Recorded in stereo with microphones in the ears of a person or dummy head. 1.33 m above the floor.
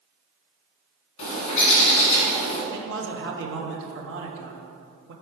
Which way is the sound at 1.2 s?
35° left (ahead or behind).